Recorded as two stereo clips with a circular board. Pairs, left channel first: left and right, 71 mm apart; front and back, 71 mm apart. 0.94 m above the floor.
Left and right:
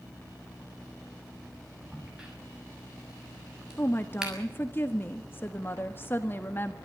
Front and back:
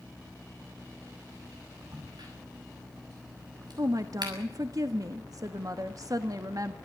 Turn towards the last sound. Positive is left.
turn(degrees=150)